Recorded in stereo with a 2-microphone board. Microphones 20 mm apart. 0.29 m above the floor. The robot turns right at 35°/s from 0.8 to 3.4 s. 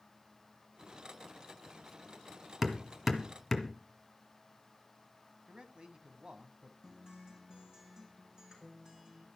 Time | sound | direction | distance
2.6 | hammering | 20° right (ahead or behind) | 2 m
5.5 | a man speaking | 50° right (ahead or behind) | 1.8 m
6.8 | a guitar | 40° right (ahead or behind) | 3.5 m